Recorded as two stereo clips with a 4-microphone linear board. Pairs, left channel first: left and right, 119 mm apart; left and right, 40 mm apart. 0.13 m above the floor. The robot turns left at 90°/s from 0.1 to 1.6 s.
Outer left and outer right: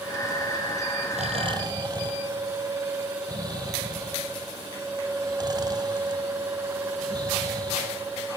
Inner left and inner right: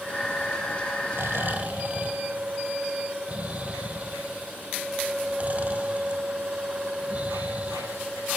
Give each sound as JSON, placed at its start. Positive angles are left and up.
{"t": 1.1, "sound": "snoring", "side_deg": -70, "distance_m": 2.0}